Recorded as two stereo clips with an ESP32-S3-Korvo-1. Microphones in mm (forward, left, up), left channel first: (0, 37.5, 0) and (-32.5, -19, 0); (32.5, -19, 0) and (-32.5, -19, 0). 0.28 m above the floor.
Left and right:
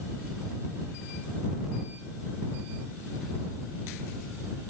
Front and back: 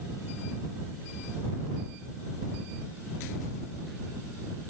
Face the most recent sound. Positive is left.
No sound to turn to.